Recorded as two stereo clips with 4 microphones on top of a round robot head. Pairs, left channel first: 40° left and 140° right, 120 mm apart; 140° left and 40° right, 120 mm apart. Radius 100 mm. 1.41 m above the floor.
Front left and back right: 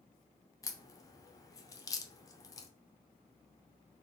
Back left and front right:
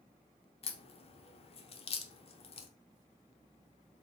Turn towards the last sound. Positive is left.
turn(degrees=105)